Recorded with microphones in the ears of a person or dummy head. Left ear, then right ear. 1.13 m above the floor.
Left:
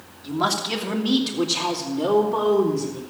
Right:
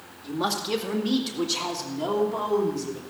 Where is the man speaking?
20° left (ahead or behind), 1.8 m; by 3.0 s centre (ahead or behind), 3 m.